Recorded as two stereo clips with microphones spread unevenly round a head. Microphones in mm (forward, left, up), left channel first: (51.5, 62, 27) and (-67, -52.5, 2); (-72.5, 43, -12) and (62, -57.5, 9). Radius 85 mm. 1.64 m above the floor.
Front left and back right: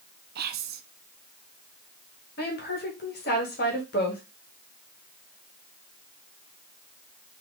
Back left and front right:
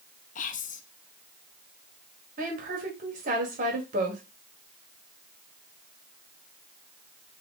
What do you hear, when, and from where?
0.3 s whispering: 170° right, 0.6 m
2.4 s a woman speaking: 10° left, 1.4 m